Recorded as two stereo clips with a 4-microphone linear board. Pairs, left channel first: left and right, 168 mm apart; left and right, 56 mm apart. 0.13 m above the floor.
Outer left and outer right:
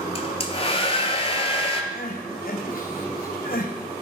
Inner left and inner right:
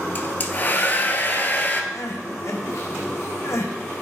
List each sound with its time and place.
0.1 s a hair dryer: 35° left (ahead or behind), 0.9 m
1.9 s crying: 65° left (ahead or behind), 1.3 m